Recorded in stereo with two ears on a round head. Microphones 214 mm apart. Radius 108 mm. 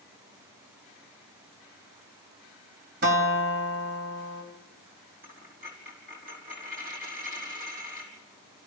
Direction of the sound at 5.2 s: 35° right (ahead or behind).